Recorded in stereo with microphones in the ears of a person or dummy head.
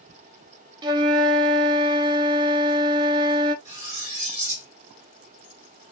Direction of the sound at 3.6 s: 40° right (ahead or behind).